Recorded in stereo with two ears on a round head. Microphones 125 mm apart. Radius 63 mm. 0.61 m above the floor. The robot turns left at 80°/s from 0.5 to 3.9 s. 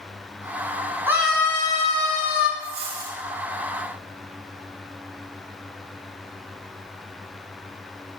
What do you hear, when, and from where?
1.1 s a scream: 165° right, 5.5 m; by 2.5 s 80° left, 5.5 m
2.6 s a dropped coin: 75° right, 4.5 m; by 3.2 s 120° right, 4.5 m